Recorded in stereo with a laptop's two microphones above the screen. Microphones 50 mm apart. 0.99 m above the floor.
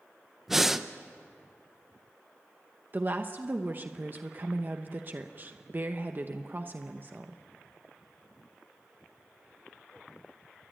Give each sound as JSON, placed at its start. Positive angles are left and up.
{"t": 0.5, "sound": "breathing", "side_deg": -5, "distance_m": 0.7}
{"t": 2.9, "sound": "a woman speaking", "side_deg": -40, "distance_m": 0.9}